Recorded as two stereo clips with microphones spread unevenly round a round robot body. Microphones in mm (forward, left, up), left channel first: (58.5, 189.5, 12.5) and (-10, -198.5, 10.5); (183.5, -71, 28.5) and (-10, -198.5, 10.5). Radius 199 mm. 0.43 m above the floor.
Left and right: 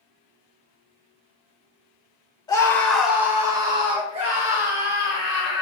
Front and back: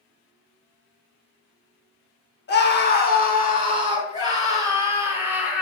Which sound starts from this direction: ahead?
A scream, at 2.5 s.